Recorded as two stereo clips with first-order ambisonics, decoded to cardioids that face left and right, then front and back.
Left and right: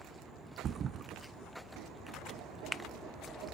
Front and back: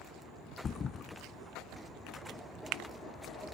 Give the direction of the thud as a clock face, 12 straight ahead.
2 o'clock.